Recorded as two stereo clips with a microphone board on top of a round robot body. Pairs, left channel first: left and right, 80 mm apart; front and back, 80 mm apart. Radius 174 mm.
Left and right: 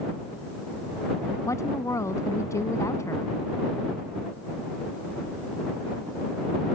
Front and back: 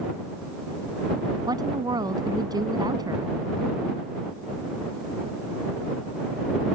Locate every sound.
1.5 s a woman speaking: 140° left